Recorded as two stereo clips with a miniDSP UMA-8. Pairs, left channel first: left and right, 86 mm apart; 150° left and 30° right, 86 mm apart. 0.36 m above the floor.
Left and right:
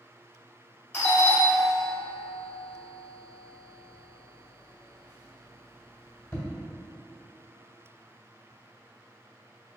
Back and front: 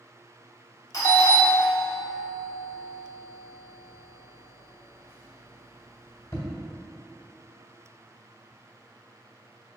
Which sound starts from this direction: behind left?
A doorbell, at 0.9 s.